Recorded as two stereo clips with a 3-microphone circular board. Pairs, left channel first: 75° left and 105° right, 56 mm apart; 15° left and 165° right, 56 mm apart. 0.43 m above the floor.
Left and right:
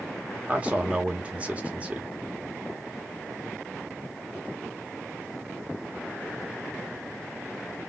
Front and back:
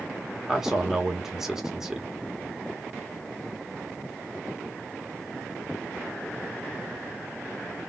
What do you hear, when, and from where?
0.5 s a man speaking: 90° right, 0.8 m